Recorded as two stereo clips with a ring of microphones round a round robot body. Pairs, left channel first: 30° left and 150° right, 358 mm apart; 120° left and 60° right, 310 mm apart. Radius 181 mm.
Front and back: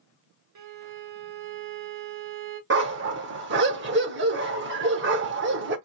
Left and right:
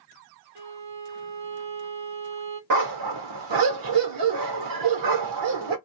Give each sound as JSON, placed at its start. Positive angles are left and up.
{"t": 0.6, "sound": "a violin", "azimuth_deg": -105, "distance_m": 0.9}
{"t": 2.7, "sound": "a dog barking", "azimuth_deg": -90, "distance_m": 0.7}